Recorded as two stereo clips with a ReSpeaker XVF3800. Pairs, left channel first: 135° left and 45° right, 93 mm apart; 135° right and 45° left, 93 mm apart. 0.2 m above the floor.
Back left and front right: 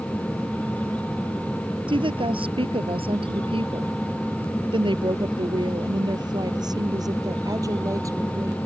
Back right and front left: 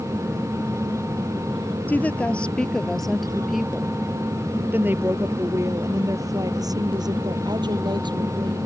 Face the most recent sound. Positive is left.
turn(degrees=10)